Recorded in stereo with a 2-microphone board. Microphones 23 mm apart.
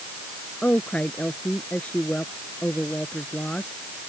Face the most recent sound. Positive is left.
turn(degrees=50)  # may be behind; listen again after turning